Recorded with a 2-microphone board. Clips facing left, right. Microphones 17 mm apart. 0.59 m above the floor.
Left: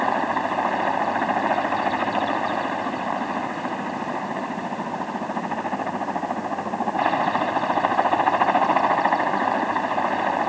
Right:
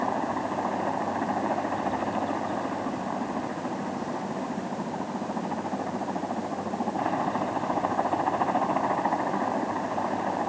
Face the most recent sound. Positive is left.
turn(degrees=70)  # may be behind; listen again after turning